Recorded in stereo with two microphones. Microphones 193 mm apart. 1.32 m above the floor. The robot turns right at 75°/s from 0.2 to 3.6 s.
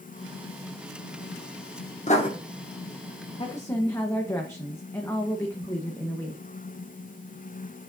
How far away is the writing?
About 1.7 m.